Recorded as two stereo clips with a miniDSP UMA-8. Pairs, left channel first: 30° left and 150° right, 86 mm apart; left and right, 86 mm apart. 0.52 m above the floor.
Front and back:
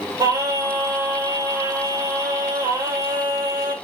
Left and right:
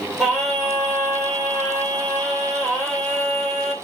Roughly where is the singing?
Behind.